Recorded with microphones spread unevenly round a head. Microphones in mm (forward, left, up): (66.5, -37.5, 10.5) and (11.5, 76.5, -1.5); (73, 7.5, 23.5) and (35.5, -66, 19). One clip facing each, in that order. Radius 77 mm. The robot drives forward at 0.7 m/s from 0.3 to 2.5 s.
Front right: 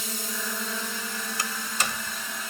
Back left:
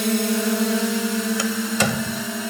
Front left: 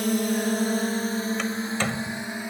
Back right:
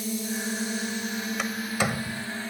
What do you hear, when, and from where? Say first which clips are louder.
0.0 s a drone: back left 15 dB, front left 7 dB; 105° left; by 2.5 s 145° left
1.4 s a door slam: back left 10 dB, front left 1 dB; 155° left; by 2.3 s 160° left